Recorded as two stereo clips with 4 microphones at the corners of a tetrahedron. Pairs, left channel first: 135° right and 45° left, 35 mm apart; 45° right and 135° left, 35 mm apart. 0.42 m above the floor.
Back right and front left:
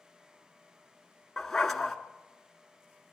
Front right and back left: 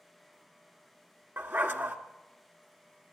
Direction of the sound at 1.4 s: 140° left.